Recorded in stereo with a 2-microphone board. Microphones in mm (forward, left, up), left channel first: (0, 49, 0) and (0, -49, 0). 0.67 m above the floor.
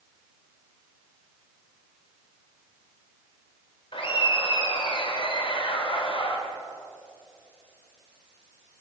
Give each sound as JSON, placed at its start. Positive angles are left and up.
{"t": 3.9, "sound": "laughter", "side_deg": 65, "distance_m": 2.0}